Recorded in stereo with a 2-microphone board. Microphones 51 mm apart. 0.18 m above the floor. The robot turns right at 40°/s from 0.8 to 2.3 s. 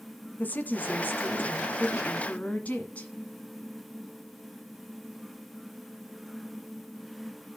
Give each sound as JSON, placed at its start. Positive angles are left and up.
{"t": 0.4, "sound": "a woman speaking", "azimuth_deg": 70, "distance_m": 1.5}